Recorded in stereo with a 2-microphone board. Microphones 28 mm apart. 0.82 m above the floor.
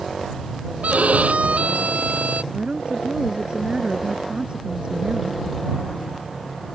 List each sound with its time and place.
0.8 s a violin: 75° right (ahead or behind)
2.5 s a woman speaking: 45° right (ahead or behind)